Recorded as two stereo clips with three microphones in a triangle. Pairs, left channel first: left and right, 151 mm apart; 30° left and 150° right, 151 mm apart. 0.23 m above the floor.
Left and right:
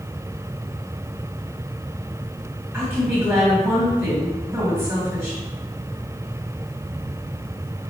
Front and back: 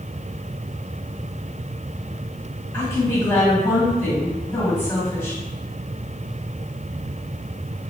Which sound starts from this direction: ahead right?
A woman speaking, at 2.7 s.